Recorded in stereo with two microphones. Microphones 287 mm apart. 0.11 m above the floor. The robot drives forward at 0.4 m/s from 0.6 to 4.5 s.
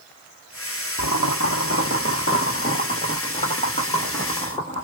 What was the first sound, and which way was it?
Boiling, 70° left (ahead or behind).